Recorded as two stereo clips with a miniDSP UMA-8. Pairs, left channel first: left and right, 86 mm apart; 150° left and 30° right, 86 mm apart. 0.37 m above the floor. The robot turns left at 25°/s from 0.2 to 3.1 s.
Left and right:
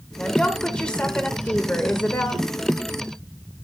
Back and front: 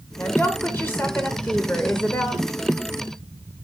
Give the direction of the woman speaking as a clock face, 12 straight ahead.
7 o'clock.